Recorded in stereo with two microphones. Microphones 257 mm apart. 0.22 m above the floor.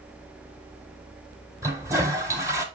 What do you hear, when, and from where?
1.6 s a toilet flushing: 10° right (ahead or behind), 1.5 m